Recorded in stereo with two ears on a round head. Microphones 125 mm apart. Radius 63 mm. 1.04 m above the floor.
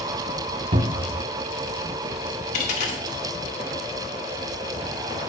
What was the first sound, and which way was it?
A cupboard door, 45° right (ahead or behind).